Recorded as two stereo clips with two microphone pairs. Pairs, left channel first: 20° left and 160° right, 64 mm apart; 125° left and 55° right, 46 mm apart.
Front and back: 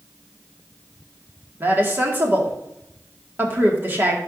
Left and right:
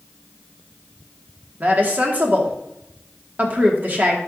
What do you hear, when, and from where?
1.6 s a woman speaking: 110° right, 2 m